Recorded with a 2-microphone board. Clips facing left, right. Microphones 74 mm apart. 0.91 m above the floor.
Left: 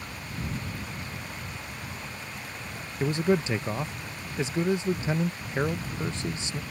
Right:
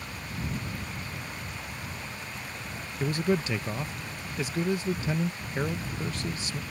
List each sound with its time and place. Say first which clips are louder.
3.0 s a man speaking: left 2 dB; 20° left (ahead or behind)